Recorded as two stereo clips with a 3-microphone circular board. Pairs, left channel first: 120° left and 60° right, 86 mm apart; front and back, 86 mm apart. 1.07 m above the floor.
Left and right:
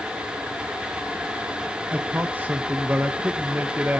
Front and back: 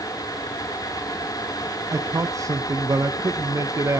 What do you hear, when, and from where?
1.9 s a man speaking: 130° right, 0.7 m